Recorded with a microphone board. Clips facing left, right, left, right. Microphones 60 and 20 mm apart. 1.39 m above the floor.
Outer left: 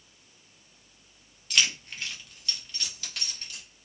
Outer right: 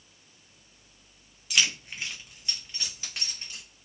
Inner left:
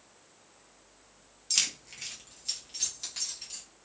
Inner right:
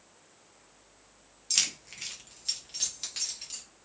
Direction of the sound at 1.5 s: 5° right (ahead or behind).